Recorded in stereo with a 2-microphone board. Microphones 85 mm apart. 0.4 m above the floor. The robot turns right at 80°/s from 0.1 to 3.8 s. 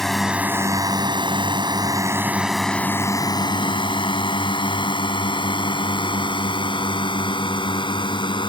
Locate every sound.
0.0 s a drone: 5° left (ahead or behind); by 8.5 s 65° left (ahead or behind)